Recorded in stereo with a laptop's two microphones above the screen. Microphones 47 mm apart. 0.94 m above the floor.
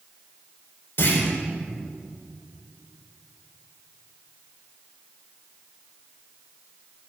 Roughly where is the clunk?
Left.